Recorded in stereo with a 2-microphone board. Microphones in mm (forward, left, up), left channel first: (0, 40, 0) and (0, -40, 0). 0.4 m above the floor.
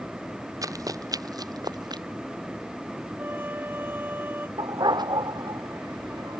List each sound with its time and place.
0.6 s running footsteps: 45° right (ahead or behind); by 2.0 s 60° right (ahead or behind)
3.2 s a trumpet: 25° right (ahead or behind)
4.6 s a dog barking: 60° right (ahead or behind)